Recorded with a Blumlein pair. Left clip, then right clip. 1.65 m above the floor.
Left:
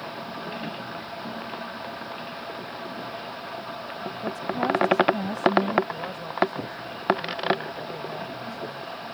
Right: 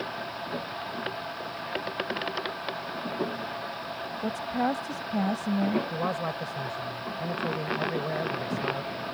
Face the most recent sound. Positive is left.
turn(degrees=-70)